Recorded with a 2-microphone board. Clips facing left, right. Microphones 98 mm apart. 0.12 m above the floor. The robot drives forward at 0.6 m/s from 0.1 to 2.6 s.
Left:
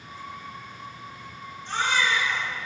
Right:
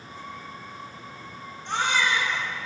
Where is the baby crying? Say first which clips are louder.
Even; 75° right (ahead or behind), 4 m; by 2.5 s 70° right (ahead or behind), 4 m.